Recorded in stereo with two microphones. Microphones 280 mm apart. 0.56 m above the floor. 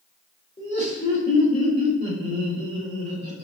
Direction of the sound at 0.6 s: 40° left (ahead or behind).